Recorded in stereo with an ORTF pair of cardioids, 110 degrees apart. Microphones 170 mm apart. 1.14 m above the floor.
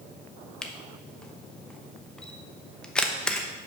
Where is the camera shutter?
5° left, 0.8 m.